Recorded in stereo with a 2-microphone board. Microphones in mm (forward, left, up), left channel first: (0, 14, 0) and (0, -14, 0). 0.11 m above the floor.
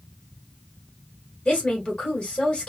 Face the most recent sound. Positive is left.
turn(degrees=25)  # may be behind; listen again after turning